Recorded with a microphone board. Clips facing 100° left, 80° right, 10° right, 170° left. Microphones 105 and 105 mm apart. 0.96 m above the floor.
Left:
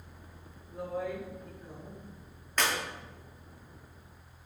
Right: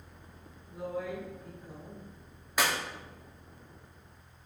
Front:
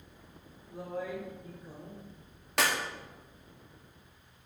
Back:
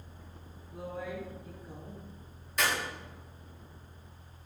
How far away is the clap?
About 2.0 m.